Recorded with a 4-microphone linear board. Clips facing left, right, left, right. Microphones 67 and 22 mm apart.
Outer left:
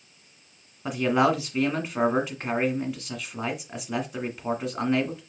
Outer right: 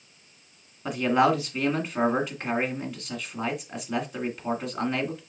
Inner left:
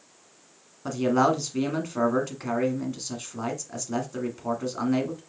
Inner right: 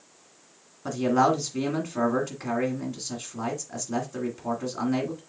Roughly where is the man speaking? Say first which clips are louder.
Even, even; centre.